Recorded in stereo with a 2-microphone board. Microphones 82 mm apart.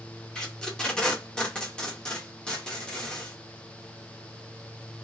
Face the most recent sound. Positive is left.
turn(degrees=10)  # may be behind; listen again after turning